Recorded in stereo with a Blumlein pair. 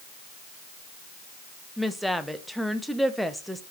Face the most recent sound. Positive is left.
turn(degrees=0)